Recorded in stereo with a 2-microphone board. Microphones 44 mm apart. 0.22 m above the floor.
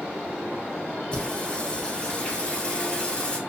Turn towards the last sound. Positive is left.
turn(degrees=25)  # may be behind; listen again after turning